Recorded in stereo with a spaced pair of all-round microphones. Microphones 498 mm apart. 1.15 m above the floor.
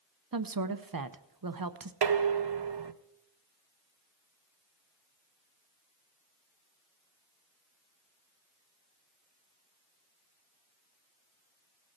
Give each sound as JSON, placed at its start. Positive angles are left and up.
{"t": 0.3, "sound": "a woman speaking", "side_deg": -45, "distance_m": 0.6}
{"t": 2.0, "sound": "dishes clattering", "side_deg": -55, "distance_m": 0.6}